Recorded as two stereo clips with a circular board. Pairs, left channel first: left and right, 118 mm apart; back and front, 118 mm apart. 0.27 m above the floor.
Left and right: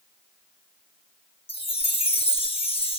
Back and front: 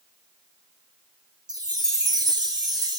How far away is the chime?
About 2.5 m.